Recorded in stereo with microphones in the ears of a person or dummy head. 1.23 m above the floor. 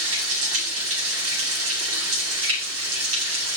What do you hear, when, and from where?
0.0 s running water: 85° right, 2.5 m